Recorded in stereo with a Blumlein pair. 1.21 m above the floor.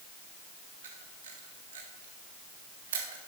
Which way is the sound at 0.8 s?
60° right.